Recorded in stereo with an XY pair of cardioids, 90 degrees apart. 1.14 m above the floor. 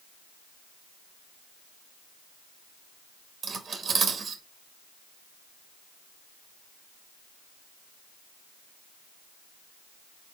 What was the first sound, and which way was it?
Cutlery clinking, 60° right.